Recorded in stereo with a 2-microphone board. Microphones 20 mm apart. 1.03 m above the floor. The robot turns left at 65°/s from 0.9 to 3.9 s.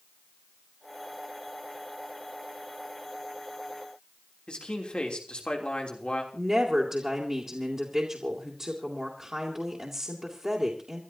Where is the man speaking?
50° left (ahead or behind), 3 m.